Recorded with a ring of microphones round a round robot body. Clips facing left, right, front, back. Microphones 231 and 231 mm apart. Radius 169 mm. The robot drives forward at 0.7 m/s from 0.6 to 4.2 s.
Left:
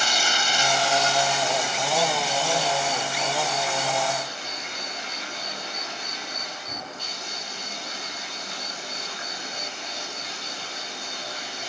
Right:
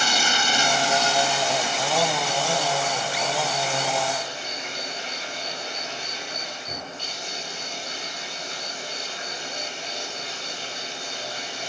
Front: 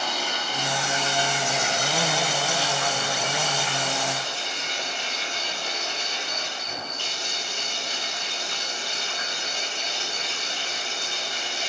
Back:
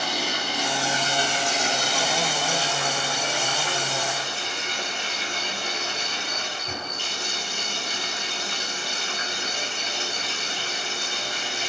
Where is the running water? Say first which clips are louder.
Right 2 dB, back 2 dB; 100° right, 0.9 m; by 11.7 s 160° right, 3 m.